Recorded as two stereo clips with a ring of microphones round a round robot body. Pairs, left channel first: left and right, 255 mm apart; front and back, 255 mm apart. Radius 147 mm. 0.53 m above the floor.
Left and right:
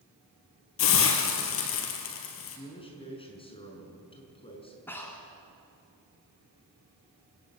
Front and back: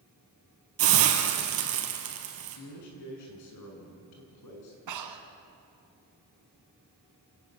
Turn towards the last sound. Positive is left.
turn(degrees=175)